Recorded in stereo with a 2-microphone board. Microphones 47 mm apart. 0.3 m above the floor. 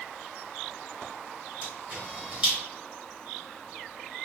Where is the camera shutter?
20° right (ahead or behind), 1.3 m.